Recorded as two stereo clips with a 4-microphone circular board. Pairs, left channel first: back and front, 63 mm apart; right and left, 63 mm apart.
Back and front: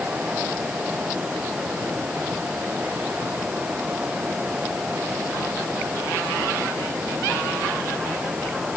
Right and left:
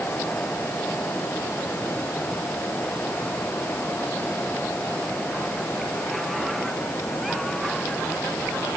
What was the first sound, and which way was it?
Only background noise.